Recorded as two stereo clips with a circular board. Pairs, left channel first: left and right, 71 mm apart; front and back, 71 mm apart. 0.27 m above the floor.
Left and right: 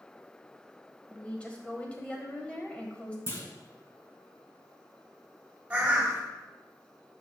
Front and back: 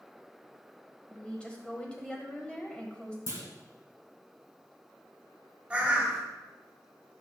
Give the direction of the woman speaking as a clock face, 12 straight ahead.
10 o'clock.